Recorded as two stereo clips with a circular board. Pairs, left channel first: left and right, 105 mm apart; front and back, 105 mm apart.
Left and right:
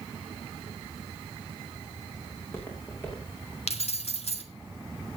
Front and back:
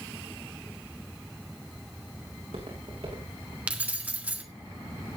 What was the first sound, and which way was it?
Footsteps, 155° left.